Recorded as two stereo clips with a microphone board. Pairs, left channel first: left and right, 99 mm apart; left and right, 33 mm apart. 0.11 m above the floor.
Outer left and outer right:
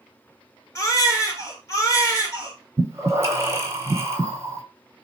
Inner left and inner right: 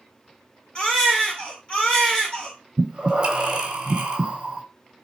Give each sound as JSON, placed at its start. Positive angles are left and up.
{"t": 0.8, "sound": "a baby crying", "side_deg": 30, "distance_m": 1.2}
{"t": 2.8, "sound": "breathing", "side_deg": -25, "distance_m": 0.8}